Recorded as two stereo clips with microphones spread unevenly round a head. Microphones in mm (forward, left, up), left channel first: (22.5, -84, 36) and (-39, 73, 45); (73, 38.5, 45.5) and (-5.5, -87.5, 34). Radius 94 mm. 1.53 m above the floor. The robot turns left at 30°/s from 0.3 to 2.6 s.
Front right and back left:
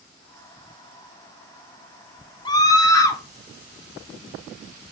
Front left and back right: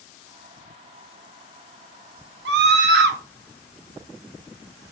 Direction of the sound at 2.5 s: 135° right.